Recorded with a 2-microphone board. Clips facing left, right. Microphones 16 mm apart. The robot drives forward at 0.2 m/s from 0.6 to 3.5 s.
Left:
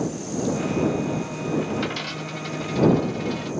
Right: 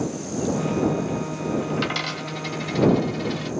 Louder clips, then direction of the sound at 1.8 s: Right 2 dB; 60° right (ahead or behind).